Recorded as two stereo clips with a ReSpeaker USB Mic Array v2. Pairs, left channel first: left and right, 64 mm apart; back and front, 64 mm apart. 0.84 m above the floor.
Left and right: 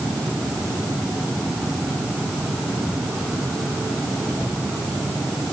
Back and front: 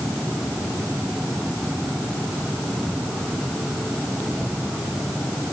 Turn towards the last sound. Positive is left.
No sound to turn to.